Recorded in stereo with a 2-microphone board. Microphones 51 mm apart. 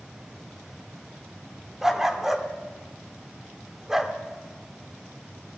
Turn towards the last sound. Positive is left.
turn(degrees=-5)  # may be behind; listen again after turning